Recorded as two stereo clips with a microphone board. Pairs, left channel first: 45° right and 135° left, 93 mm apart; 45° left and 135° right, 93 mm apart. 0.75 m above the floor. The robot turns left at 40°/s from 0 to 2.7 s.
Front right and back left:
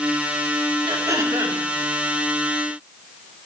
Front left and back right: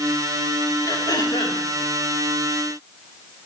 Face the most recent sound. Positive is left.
turn(degrees=25)